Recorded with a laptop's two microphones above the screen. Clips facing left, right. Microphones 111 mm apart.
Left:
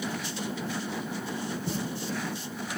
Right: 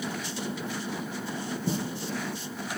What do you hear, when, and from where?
1.7 s footsteps: 20° right (ahead or behind), 1.3 m